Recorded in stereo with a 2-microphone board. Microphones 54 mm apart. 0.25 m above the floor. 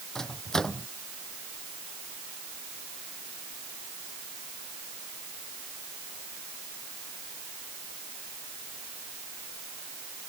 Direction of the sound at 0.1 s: 10° left (ahead or behind).